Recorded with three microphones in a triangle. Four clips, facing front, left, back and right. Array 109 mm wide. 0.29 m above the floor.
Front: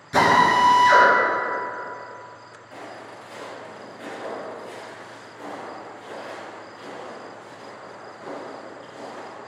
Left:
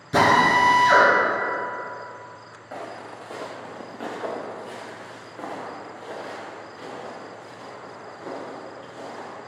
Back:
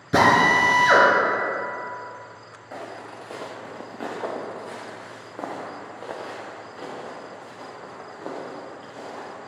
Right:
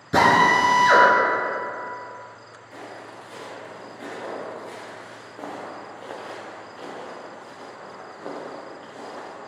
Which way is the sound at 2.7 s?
125° left.